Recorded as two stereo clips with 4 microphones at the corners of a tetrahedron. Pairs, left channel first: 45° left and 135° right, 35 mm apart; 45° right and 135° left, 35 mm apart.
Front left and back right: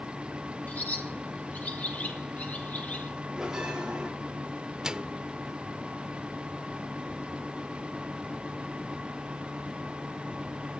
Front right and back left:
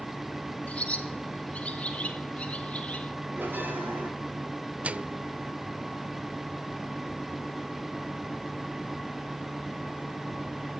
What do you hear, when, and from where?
0.7 s a bird: 5° left, 4.5 m
3.4 s a bell: 150° left, 8.5 m
4.8 s a microwave: 160° left, 0.7 m